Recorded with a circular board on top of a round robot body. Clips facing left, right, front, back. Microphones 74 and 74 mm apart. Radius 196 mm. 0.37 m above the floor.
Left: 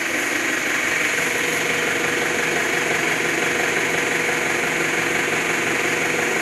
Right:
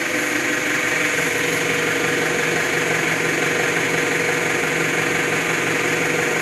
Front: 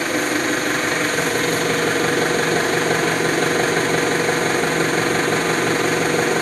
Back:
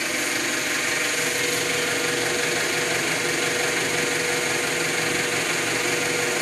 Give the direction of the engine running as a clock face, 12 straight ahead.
12 o'clock.